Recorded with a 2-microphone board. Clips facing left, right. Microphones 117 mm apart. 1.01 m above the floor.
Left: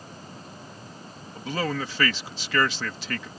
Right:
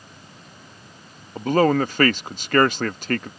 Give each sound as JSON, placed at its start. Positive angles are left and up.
{"t": 1.4, "sound": "a man speaking", "side_deg": -50}